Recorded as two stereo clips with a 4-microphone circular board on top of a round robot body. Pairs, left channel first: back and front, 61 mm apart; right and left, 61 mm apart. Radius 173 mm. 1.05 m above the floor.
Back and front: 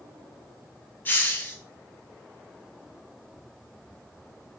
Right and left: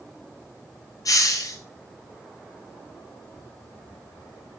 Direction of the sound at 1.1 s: 120° right.